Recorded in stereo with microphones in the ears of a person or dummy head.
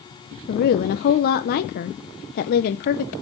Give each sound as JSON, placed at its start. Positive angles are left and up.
{"t": 0.5, "sound": "a woman speaking", "side_deg": 50, "distance_m": 0.7}